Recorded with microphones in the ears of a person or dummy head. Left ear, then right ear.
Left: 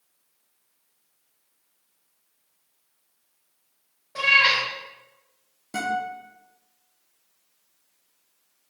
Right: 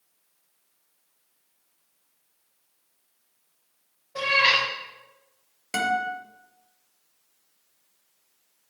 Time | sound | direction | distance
4.2 | a cat meowing | 25° left (ahead or behind) | 1.0 m
5.7 | a guitar | 65° right (ahead or behind) | 0.5 m